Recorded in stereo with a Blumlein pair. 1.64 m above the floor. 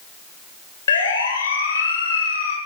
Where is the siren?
65° left, 8 m.